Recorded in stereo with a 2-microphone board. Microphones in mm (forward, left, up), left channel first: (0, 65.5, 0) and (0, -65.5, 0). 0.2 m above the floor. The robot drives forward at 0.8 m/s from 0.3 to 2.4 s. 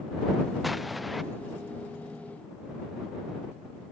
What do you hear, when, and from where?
0.6 s an explosion: centre (ahead or behind)